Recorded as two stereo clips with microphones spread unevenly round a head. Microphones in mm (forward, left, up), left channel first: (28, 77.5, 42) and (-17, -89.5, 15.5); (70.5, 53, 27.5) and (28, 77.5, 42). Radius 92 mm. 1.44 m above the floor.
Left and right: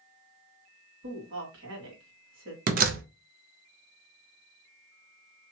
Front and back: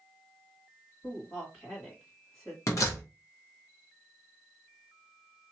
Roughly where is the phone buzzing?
No phone buzzing in this recording.